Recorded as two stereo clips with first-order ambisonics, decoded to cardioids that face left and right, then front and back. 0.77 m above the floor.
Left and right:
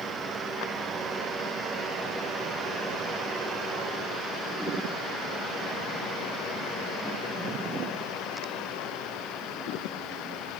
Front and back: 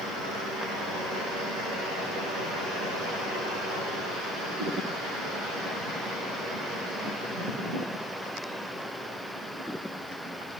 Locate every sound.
Only background noise.